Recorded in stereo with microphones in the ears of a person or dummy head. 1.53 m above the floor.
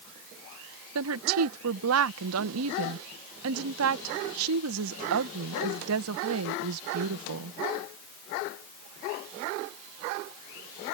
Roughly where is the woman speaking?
Right.